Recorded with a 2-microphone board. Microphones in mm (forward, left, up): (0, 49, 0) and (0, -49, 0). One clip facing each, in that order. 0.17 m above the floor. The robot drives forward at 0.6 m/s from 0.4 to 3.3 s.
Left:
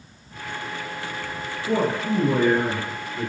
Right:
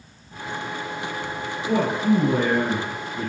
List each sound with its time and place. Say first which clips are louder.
1.7 s a man speaking: right 2 dB; 5° right (ahead or behind), 1.7 m